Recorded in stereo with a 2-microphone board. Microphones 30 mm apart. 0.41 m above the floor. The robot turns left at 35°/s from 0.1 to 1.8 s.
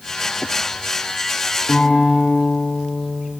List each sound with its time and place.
1.7 s a guitar: 65° left (ahead or behind), 6.5 m